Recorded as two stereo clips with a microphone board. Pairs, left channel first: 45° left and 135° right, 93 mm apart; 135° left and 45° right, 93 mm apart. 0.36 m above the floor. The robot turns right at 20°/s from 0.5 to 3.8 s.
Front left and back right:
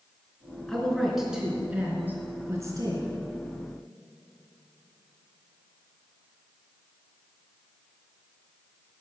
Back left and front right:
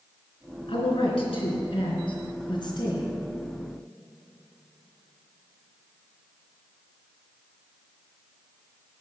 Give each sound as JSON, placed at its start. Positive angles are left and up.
{"t": 0.7, "sound": "a woman speaking", "azimuth_deg": 130, "distance_m": 3.5}